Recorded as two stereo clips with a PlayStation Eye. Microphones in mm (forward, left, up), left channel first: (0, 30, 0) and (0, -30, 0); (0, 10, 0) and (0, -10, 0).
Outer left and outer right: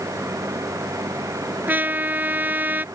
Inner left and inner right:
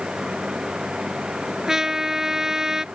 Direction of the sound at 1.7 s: 30° right (ahead or behind).